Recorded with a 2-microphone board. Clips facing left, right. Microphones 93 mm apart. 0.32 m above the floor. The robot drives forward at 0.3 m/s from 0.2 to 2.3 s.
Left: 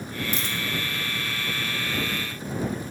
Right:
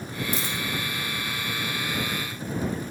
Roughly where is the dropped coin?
Right.